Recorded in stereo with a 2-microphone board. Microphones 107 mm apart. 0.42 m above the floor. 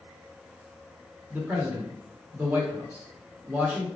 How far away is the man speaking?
About 1.0 m.